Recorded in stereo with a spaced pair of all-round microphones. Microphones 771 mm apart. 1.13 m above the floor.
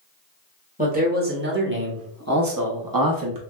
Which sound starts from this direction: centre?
A man speaking, at 0.8 s.